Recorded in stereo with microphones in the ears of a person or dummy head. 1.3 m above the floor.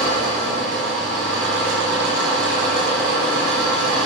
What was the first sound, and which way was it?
An engine running, 65° right (ahead or behind).